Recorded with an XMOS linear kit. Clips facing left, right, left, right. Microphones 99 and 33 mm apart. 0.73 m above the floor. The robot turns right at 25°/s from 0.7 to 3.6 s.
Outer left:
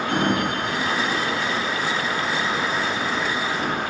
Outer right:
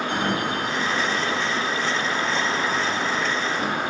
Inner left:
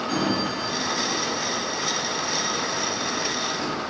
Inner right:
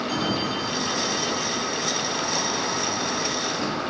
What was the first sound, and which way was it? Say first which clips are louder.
A sliding door: outer left 5 dB, inner left 2 dB; 50° left (ahead or behind).